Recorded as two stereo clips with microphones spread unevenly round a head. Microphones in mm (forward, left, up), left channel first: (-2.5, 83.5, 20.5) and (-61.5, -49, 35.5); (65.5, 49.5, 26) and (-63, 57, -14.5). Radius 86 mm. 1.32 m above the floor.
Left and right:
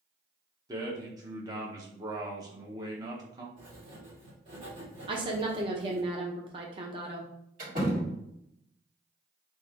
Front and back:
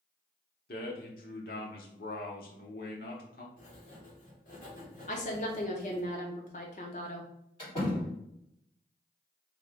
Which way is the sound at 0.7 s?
45° right.